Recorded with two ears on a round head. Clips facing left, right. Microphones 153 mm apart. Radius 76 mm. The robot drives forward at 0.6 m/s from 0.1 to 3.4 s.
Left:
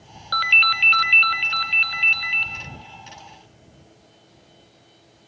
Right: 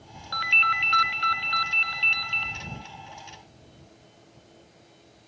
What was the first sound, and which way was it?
A ringtone, 55° left (ahead or behind).